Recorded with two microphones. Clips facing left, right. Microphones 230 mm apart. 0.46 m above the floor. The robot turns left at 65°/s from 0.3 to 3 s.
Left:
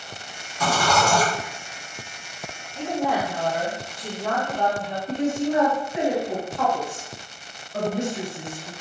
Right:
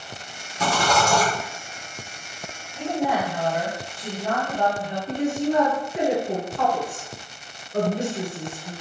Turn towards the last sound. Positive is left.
turn(degrees=-35)  # may be behind; listen again after turning